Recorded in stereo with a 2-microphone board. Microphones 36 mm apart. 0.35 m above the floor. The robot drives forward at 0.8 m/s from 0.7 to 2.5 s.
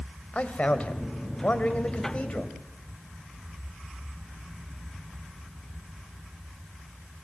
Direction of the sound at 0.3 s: 45° left (ahead or behind).